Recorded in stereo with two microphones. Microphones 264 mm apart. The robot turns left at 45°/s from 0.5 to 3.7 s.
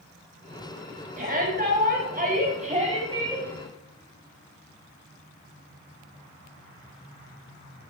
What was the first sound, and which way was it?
A shout, 60° right.